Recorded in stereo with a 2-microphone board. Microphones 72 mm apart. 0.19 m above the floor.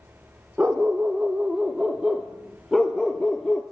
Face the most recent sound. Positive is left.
turn(degrees=10)  # may be behind; listen again after turning